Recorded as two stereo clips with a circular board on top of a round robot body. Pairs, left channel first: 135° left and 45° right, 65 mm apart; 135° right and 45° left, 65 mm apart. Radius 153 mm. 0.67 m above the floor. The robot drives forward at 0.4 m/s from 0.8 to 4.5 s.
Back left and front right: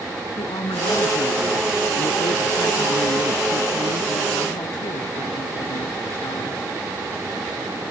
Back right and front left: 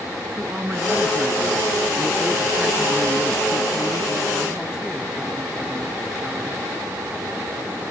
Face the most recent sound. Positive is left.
turn(degrees=125)